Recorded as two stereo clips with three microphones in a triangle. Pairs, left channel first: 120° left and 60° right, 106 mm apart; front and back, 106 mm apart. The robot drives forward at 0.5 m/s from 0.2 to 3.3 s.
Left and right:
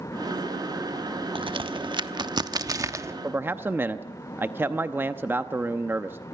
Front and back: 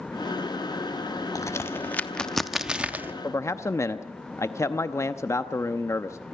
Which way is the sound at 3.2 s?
15° right.